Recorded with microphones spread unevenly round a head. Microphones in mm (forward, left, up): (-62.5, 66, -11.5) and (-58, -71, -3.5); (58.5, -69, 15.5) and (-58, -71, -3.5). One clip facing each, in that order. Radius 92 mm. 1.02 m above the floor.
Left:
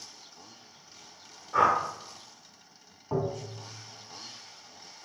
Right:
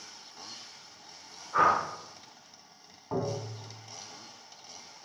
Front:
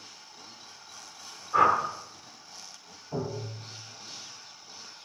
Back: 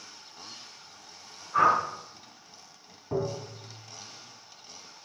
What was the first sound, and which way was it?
A whoosh, 25° left.